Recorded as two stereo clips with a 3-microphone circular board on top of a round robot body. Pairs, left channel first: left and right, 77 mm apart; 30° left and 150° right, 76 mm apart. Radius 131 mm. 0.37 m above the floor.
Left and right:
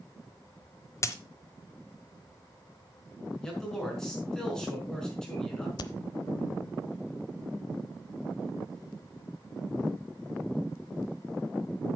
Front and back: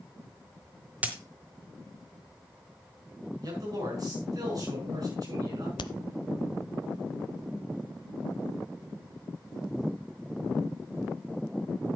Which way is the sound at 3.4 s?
170° left.